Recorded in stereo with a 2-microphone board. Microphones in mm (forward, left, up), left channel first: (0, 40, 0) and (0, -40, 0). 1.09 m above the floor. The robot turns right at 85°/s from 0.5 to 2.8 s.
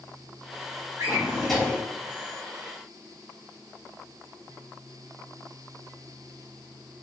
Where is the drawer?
45° right, 1.3 m; by 1.9 s 30° left, 1.3 m.